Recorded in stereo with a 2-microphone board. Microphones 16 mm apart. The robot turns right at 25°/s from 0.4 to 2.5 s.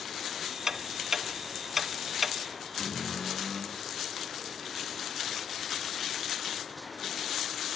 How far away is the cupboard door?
About 2.5 m.